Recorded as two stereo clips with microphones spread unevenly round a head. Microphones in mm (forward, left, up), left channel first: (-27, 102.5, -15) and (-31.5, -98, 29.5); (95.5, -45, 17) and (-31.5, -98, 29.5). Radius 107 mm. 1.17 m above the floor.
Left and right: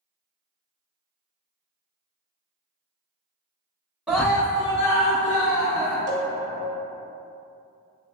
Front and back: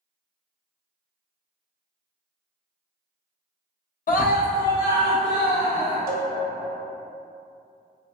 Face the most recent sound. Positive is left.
turn(degrees=-150)